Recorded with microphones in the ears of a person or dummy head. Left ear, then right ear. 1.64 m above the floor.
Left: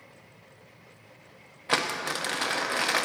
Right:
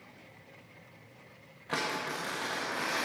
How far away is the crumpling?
About 0.7 m.